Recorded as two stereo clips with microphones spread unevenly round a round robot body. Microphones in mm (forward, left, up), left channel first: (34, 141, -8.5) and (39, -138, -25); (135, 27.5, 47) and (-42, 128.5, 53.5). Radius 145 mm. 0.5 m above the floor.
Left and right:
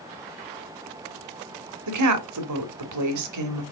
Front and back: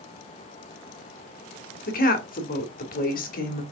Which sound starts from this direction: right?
A woman speaking, at 1.9 s.